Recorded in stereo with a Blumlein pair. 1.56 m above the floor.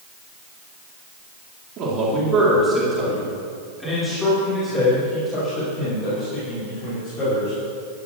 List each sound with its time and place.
1.8 s a man speaking: 35° right, 4 m; by 7.5 s 35° left, 9 m